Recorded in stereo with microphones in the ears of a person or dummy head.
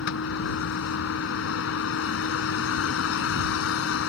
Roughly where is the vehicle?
Left.